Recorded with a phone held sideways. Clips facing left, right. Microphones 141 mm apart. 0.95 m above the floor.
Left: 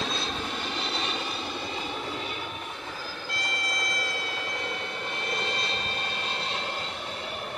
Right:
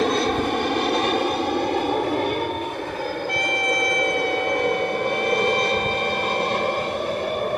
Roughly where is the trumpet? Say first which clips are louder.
Right 8 dB; right.